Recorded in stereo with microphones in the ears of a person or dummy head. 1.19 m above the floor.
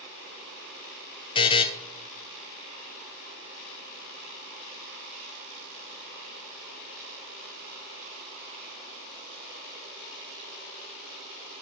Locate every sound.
1.4 s a buzzer: 30° left (ahead or behind), 0.8 m